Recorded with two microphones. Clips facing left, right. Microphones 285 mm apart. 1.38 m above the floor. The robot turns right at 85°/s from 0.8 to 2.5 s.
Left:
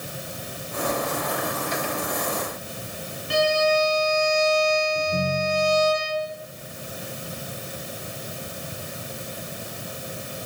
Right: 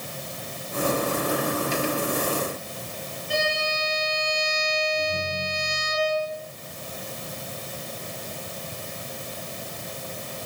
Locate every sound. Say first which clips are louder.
3.3 s a violin: left 8 dB; 80° left, 5.5 m
5.0 s a ringtone: left 4 dB; 55° left (ahead or behind), 9.5 m